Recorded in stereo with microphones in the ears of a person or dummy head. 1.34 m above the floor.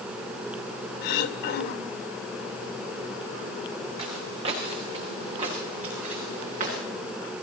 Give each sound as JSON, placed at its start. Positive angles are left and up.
{"t": 1.0, "sound": "throat clearing", "side_deg": 75, "distance_m": 2.5}
{"t": 4.0, "sound": "footsteps", "side_deg": -30, "distance_m": 6.5}